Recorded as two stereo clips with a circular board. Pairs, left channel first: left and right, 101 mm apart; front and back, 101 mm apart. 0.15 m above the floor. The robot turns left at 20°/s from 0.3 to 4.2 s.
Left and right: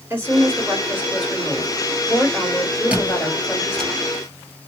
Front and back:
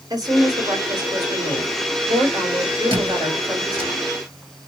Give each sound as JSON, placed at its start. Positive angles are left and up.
{"t": 0.1, "sound": "a woman speaking", "azimuth_deg": -150, "distance_m": 2.5}
{"t": 2.9, "sound": "a squeak", "azimuth_deg": -165, "distance_m": 1.8}